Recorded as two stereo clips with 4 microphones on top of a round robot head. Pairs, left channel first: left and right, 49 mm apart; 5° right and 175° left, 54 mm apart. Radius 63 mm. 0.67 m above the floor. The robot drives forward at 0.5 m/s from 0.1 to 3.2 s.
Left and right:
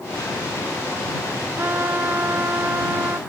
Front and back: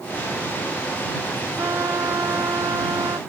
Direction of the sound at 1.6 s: 135° right.